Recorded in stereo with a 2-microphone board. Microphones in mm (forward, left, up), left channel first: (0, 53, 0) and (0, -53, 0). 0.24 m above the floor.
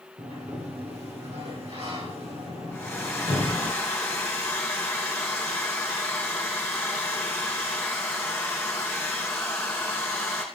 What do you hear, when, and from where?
0.2 s a sliding door: 80° right, 8 m
2.7 s a hair dryer: 20° left (ahead or behind), 4.5 m